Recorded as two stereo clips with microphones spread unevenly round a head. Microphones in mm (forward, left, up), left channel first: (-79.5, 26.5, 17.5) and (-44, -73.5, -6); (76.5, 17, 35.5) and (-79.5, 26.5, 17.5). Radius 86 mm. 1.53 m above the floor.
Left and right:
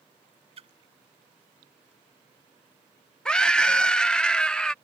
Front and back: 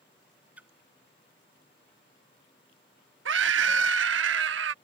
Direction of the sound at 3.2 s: 170° right.